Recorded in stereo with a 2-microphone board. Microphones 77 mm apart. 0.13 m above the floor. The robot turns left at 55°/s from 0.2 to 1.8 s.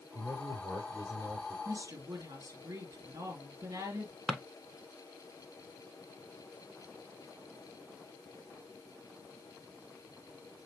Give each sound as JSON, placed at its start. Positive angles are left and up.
{"t": 0.1, "sound": "a man speaking", "azimuth_deg": -85, "distance_m": 4.5}
{"t": 1.6, "sound": "a woman speaking", "side_deg": -50, "distance_m": 2.5}
{"t": 4.3, "sound": "a drawer", "side_deg": -15, "distance_m": 0.7}